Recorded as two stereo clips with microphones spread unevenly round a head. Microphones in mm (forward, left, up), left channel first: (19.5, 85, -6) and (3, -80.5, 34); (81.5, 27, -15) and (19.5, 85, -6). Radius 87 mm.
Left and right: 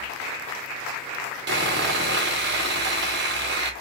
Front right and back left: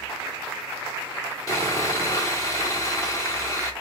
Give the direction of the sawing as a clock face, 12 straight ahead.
4 o'clock.